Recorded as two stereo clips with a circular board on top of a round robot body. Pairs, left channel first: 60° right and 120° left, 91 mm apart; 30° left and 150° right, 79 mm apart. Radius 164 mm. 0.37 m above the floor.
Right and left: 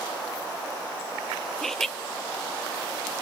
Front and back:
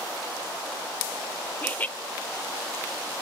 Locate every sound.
1.6 s laughter: 20° left, 1.1 m